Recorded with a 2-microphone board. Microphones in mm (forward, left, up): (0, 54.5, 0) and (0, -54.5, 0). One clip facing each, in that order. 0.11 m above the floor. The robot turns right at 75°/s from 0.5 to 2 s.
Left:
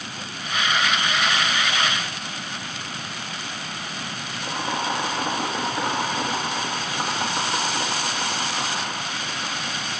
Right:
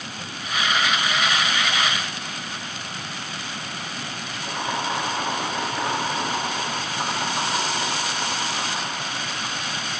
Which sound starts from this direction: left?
Boiling, at 4.4 s.